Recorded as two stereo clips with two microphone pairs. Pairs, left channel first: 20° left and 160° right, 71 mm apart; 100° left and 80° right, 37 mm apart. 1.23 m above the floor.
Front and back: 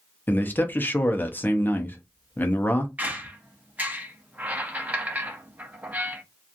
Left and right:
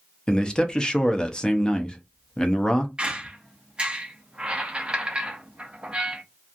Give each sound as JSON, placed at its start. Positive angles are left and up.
{"t": 0.3, "sound": "a man speaking", "azimuth_deg": 60, "distance_m": 0.7}
{"t": 3.0, "sound": "a squeak", "azimuth_deg": -125, "distance_m": 0.6}